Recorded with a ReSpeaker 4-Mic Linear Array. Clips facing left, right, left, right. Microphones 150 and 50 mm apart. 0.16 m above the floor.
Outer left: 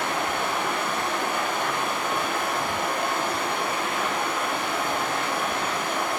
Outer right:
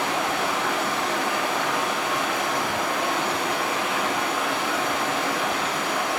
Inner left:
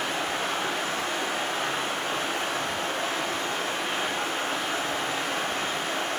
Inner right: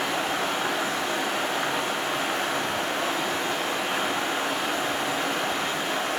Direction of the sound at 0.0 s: 85° right.